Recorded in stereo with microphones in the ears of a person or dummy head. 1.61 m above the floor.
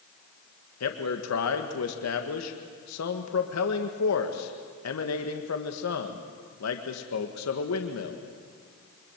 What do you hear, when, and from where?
0.8 s a man speaking: 80° left, 1.9 m